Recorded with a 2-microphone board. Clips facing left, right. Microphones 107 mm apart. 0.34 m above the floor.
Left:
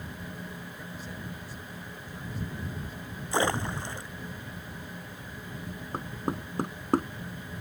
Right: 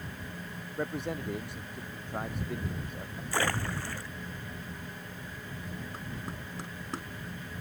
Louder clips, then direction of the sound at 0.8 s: Right 7 dB; 65° right (ahead or behind).